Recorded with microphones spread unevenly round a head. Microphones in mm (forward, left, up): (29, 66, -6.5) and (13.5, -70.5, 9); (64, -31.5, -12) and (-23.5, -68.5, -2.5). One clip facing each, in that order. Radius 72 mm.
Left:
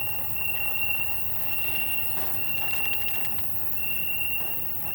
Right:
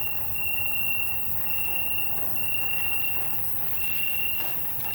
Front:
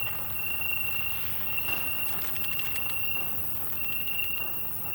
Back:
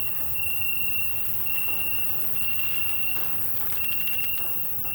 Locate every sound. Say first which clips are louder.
0.0 s an insect: left 1 dB, front 1 dB; 175° left, 2.5 m